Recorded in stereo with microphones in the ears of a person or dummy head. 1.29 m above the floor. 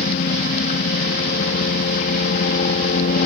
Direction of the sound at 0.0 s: 45° left (ahead or behind).